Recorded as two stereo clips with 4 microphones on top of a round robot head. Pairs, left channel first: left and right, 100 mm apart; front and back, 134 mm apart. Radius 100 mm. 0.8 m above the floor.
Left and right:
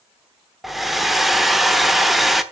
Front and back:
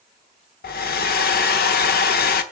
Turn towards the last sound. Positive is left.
turn(degrees=0)